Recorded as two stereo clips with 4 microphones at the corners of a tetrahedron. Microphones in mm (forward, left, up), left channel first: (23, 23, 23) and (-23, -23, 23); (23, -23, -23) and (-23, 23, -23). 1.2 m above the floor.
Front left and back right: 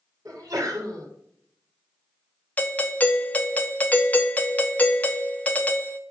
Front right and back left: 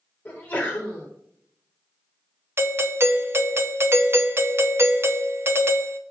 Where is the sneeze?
110° right, 3 m.